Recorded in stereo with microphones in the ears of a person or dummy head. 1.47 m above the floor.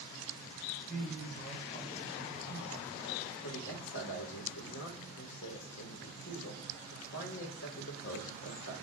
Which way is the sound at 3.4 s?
70° left (ahead or behind).